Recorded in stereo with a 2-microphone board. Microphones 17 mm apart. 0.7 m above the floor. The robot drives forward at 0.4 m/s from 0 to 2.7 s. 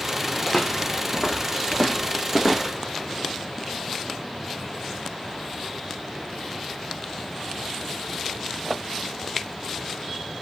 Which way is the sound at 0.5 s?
35° left (ahead or behind).